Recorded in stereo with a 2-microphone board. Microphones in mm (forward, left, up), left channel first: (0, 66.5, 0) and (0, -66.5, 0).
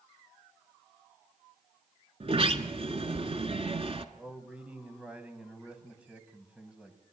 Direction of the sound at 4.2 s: 10° right (ahead or behind).